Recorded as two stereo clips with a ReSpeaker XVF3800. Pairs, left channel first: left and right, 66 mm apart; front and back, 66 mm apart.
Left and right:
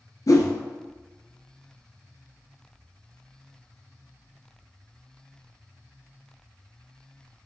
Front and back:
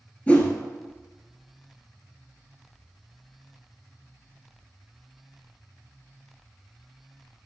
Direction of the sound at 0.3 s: 65° left.